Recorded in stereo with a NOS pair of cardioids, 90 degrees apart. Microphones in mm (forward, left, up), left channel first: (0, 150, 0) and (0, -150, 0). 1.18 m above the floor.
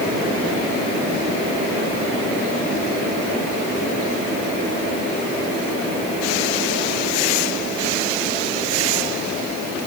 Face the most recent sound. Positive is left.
No sound to turn to.